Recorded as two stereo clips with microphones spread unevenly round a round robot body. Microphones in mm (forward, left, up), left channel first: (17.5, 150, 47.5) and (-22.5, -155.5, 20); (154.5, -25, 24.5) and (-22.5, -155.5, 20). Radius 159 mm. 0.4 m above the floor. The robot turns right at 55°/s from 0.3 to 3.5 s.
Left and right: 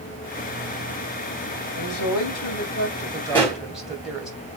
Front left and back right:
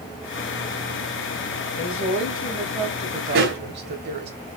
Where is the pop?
165° left, 3.5 m; by 3.6 s 175° left, 3.5 m.